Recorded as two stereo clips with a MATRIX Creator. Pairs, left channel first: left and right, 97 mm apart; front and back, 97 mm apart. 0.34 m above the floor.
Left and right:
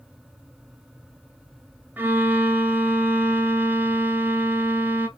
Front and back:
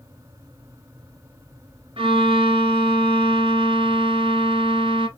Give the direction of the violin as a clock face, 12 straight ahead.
5 o'clock.